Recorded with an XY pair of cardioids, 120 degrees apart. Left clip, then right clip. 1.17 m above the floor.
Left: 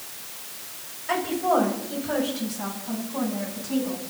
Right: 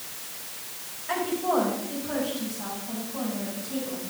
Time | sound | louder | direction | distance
1.1 | a woman speaking | left 3 dB | 35° left | 6.5 m